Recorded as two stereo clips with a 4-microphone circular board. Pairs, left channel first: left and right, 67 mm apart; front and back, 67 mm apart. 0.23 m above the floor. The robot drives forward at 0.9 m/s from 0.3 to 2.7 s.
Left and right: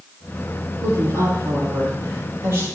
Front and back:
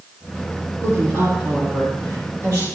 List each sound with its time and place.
0.8 s a woman speaking: 135° right, 5 m; by 2.6 s 145° right, 6 m